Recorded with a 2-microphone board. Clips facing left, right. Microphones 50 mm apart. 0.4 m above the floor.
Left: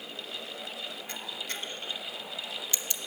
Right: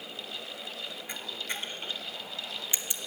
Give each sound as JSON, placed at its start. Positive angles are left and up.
{"t": 1.1, "sound": "a camera shutter", "side_deg": -20, "distance_m": 1.1}